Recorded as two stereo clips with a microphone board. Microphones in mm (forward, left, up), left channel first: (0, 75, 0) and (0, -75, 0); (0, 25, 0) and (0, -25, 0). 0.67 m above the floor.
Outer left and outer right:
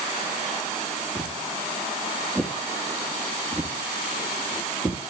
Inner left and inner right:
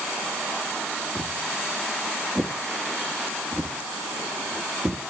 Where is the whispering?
No whispering in this recording.